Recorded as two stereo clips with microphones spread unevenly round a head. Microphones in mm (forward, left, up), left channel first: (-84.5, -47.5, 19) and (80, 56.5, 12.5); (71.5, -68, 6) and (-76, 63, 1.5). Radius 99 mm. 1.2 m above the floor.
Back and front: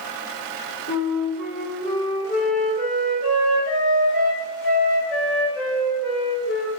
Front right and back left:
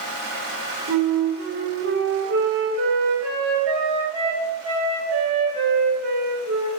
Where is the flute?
165° left, 3 m.